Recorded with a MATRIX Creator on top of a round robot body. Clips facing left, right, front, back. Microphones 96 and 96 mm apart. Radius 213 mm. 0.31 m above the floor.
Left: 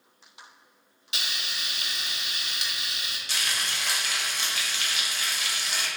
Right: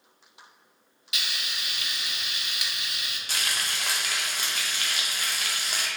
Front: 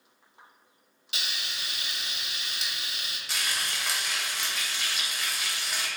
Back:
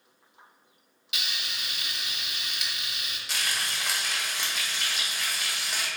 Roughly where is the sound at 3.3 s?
Right.